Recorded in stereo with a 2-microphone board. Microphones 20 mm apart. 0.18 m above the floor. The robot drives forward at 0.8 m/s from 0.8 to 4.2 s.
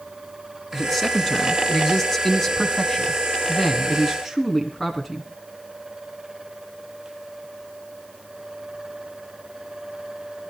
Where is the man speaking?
10° left (ahead or behind), 1.9 m.